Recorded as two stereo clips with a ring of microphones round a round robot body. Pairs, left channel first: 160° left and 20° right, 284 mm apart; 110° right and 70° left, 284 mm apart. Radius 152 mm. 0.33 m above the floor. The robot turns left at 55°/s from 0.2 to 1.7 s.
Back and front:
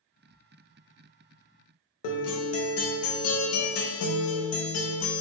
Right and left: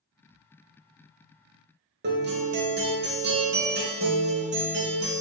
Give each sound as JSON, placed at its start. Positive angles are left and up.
{"t": 2.0, "sound": "a guitar", "azimuth_deg": 120, "distance_m": 0.6}